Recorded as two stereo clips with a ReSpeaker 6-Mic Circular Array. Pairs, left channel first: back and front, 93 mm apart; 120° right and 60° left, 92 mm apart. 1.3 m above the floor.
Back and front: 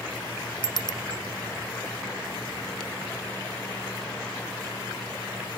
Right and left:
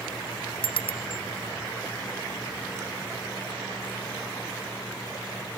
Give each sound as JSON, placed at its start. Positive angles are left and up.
{"t": 0.6, "sound": "a bicycle bell", "azimuth_deg": -140}